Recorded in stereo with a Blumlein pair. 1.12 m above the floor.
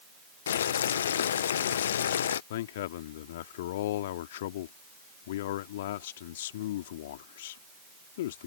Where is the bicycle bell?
I don't hear a bicycle bell.